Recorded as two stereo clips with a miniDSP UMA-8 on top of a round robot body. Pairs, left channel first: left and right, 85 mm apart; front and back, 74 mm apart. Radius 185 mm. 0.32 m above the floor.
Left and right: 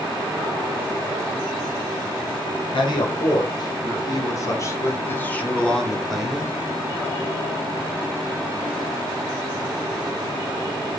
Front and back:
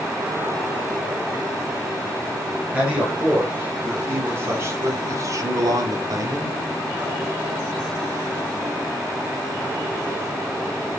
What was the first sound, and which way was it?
A man speaking, 105° left.